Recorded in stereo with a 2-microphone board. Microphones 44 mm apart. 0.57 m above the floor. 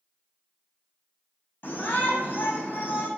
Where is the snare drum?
No snare drum in this recording.